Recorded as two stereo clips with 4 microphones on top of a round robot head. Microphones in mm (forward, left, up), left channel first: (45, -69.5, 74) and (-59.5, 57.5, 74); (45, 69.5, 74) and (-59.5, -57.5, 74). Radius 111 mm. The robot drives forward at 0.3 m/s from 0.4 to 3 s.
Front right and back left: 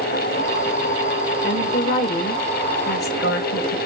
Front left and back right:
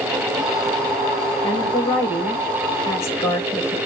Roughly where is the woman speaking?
Ahead.